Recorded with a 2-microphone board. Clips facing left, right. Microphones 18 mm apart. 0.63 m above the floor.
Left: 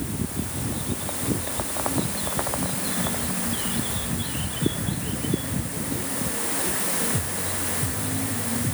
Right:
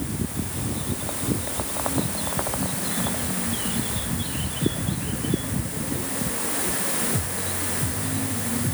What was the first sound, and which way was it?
Only background noise.